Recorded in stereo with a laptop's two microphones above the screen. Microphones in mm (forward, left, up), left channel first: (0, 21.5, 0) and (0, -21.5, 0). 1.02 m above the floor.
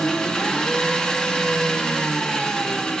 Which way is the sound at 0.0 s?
15° left (ahead or behind).